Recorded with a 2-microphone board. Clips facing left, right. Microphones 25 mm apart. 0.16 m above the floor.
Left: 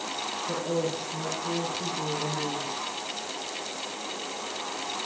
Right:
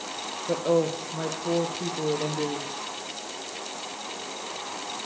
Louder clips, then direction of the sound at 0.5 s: Right 7 dB; 65° right (ahead or behind).